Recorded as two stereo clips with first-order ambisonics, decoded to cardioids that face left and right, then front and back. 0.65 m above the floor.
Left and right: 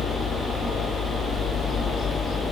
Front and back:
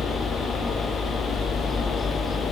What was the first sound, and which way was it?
A helicopter, 65° left.